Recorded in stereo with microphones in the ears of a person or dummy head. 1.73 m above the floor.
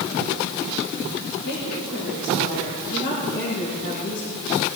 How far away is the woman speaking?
About 5 m.